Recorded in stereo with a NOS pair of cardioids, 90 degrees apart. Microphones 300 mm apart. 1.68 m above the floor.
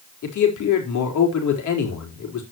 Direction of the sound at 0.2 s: 70° left.